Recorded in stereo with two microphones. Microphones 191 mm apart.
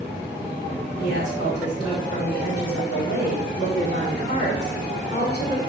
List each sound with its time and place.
1.0 s a woman speaking: 60° left (ahead or behind), 2.5 m